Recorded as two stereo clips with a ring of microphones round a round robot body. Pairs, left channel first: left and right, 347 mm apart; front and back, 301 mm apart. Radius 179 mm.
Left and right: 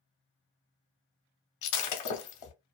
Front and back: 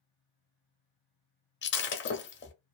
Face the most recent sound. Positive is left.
turn(degrees=55)